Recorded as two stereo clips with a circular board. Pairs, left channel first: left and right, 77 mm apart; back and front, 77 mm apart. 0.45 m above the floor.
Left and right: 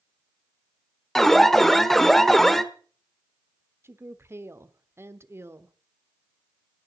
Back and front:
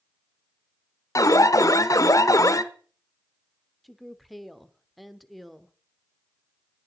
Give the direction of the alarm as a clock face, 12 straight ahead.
6 o'clock.